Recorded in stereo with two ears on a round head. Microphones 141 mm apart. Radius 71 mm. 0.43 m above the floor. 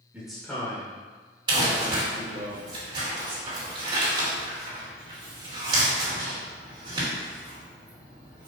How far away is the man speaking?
About 1.1 m.